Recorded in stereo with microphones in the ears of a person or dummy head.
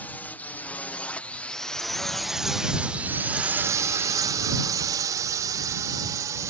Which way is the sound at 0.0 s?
10° left (ahead or behind).